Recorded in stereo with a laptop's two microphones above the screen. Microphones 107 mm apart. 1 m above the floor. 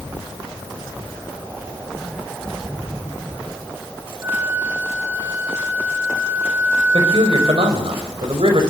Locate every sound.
4.2 s a flute: 20° right (ahead or behind), 1.5 m
6.9 s a man speaking: 65° right (ahead or behind), 5 m